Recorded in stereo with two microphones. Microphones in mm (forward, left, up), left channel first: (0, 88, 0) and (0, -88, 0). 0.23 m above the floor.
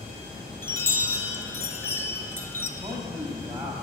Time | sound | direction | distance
0.6 | a chime | 15° left (ahead or behind) | 0.6 m
2.8 | a man speaking | 20° right (ahead or behind) | 1.0 m